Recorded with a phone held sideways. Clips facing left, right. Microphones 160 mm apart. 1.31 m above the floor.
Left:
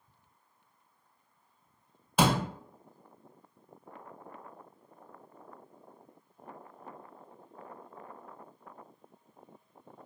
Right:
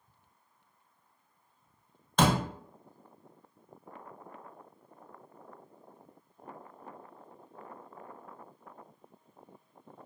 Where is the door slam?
10° left (ahead or behind), 0.7 m.